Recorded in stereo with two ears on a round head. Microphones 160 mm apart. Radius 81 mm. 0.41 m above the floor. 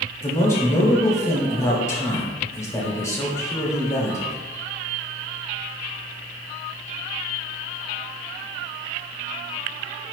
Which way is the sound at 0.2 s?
15° left (ahead or behind).